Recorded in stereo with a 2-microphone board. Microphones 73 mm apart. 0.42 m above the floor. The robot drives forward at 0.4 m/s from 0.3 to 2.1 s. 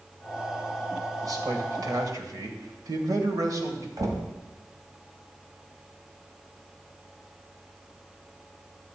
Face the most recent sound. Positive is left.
turn(degrees=-55)  # may be behind; listen again after turning